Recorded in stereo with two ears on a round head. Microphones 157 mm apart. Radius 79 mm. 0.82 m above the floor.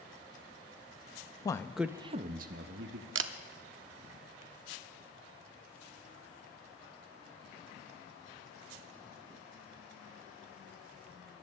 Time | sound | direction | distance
1.4 | a man speaking | 20° left (ahead or behind) | 0.6 m
3.1 | a camera shutter | 80° right | 0.7 m